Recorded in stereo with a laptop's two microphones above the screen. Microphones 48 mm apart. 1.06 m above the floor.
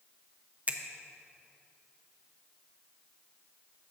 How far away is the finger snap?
About 0.7 m.